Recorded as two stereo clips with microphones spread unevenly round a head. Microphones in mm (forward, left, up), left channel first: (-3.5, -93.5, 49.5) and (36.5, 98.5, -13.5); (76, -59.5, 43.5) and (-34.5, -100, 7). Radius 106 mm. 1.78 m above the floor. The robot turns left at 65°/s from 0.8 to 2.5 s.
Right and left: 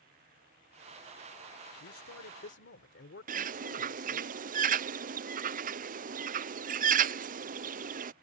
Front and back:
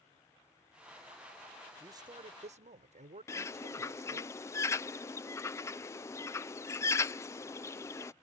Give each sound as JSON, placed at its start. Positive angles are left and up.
{"t": 1.8, "sound": "a man speaking", "azimuth_deg": -85}
{"t": 3.3, "sound": "a bird", "azimuth_deg": 25}